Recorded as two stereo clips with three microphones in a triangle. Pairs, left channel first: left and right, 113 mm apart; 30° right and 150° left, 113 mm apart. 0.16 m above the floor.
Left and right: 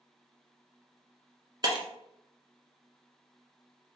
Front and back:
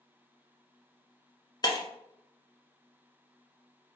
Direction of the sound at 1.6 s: 65° right.